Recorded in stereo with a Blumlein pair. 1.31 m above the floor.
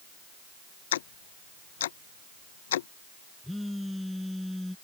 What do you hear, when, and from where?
0.9 s ticking: 60° left
3.4 s a phone buzzing: 5° left